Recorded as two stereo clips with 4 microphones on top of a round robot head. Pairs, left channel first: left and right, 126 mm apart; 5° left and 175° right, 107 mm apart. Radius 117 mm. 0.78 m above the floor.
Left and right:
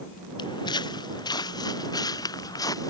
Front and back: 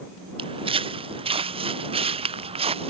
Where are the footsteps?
150° left; by 2.9 s 155° left.